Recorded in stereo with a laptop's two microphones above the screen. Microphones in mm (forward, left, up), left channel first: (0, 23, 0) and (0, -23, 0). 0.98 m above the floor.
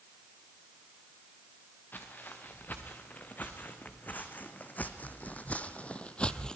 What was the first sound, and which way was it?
Footsteps, 40° left (ahead or behind).